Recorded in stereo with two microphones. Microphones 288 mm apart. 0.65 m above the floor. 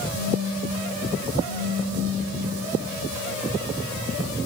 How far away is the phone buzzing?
About 2.5 m.